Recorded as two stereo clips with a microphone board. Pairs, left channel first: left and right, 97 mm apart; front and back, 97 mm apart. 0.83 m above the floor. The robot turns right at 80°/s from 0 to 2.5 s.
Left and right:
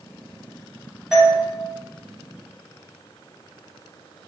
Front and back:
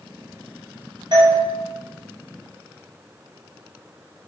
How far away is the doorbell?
About 1.2 m.